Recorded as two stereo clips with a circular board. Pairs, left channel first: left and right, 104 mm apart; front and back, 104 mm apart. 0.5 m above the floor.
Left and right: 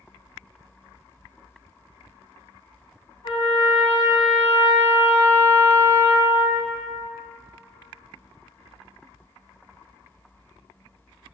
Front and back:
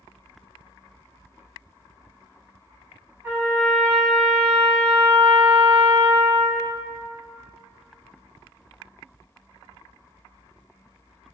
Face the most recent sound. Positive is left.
turn(degrees=110)